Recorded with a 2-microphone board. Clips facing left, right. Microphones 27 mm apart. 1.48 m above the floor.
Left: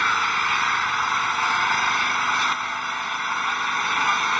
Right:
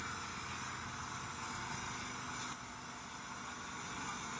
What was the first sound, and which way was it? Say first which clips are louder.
An engine running: left 23 dB; 65° left (ahead or behind).